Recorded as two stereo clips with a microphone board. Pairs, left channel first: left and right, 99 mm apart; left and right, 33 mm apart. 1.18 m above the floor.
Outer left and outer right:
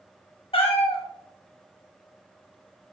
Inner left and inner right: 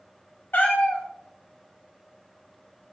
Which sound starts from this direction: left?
A cat meowing, at 0.5 s.